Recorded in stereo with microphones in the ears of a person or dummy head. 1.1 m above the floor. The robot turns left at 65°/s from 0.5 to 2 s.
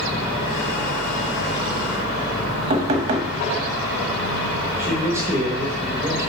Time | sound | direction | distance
2.7 | knocking | 30° right (ahead or behind) | 0.9 m
4.8 | a man speaking | 10° right (ahead or behind) | 1.0 m